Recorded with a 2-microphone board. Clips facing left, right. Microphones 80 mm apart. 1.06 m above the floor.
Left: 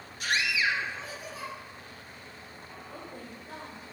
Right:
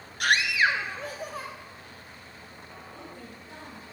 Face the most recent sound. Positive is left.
turn(degrees=45)  # may be behind; listen again after turning